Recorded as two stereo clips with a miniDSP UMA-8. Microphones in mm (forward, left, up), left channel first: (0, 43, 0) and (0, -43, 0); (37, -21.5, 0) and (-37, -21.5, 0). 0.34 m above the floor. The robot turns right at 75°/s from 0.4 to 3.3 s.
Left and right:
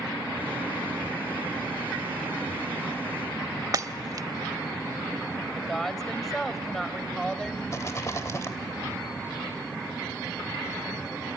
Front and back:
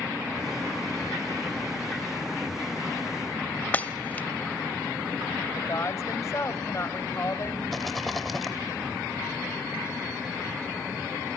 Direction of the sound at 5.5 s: 5° left.